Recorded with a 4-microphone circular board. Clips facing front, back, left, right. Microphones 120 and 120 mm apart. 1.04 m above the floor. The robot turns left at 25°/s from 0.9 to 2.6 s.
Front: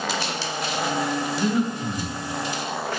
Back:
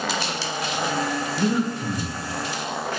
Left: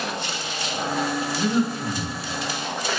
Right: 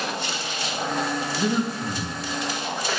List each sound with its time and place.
1.4 s breathing: 155° right, 0.6 m; by 2.2 s 175° right, 0.6 m